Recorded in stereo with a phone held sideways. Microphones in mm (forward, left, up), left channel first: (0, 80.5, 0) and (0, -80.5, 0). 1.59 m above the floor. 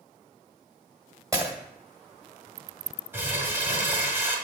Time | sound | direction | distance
1.3 | breaking glass | 20° right (ahead or behind) | 1.5 m
3.1 | crumpling | 15° right (ahead or behind) | 1.8 m